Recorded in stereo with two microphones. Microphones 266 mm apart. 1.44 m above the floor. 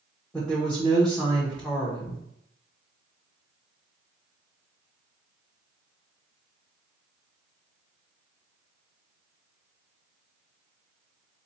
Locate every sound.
0.3 s a woman speaking: 5° left (ahead or behind), 0.8 m